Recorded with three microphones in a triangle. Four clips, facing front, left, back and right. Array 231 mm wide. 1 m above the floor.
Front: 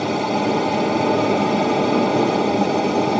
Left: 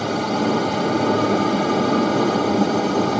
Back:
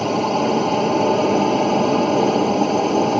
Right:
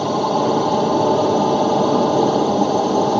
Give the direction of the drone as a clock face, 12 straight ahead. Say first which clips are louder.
Right 3 dB, back 1 dB; 3 o'clock.